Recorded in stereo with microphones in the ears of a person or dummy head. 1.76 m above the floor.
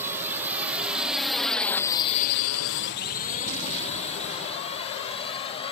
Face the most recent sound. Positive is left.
turn(degrees=25)  # may be behind; listen again after turning